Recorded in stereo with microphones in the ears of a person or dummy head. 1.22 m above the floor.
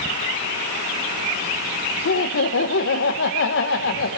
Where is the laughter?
55° left (ahead or behind), 0.9 m.